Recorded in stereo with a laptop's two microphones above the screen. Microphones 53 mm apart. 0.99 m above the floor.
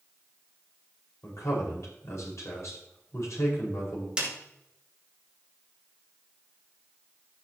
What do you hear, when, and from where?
1.2 s a man speaking: 70° left (ahead or behind), 4.5 m
4.2 s a snare drum: 20° right (ahead or behind), 2 m